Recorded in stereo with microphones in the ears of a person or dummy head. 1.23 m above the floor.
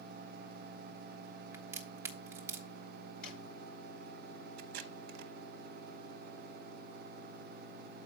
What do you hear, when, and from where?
1.5 s a crack: 15° right (ahead or behind), 0.9 m
3.2 s a drawer: 55° left (ahead or behind), 7.5 m
4.6 s tape being pulled: 60° right (ahead or behind), 0.9 m